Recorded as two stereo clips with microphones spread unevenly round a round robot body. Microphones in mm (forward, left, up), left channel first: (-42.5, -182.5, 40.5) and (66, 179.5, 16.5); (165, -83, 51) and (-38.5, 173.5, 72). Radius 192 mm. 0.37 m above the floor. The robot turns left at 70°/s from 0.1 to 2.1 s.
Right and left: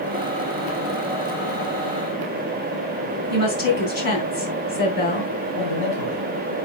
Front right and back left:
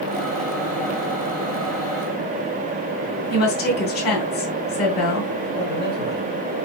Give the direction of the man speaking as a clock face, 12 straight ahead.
4 o'clock.